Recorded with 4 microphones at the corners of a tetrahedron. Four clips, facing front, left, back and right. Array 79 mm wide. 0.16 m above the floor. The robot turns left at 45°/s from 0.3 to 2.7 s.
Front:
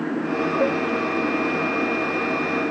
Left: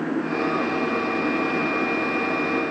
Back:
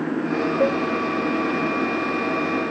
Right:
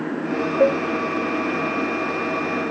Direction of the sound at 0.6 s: 100° right.